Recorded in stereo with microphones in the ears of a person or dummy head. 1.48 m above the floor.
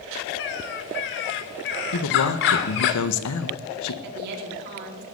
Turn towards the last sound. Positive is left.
turn(degrees=-60)  # may be behind; listen again after turning